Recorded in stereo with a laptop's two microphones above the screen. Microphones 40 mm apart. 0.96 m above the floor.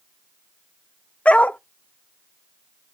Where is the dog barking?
35° left (ahead or behind), 0.5 m.